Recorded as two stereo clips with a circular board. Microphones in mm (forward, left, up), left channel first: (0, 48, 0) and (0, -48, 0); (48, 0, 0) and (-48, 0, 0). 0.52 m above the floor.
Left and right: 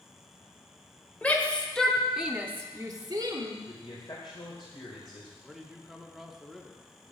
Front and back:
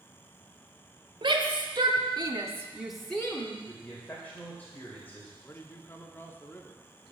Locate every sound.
1.2 s a shout: 165° left, 1.8 m; by 3.6 s 60° right, 1.3 m
3.7 s a man speaking: 70° left, 2.5 m
5.4 s a man speaking: 5° right, 1.0 m